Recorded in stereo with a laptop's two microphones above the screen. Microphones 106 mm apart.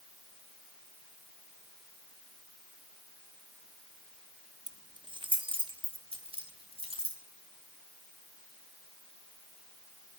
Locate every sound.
4.7 s keys jangling: 40° right (ahead or behind), 0.6 m; by 7.2 s 70° right (ahead or behind), 2 m